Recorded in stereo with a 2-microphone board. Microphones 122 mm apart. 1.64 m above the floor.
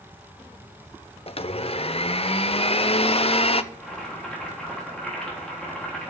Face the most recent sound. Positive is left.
turn(degrees=5)  # may be behind; listen again after turning